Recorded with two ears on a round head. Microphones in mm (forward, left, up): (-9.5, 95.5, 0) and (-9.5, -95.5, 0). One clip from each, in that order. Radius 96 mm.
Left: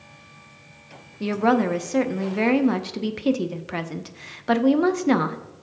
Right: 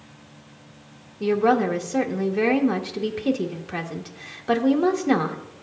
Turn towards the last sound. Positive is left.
turn(degrees=10)  # may be behind; listen again after turning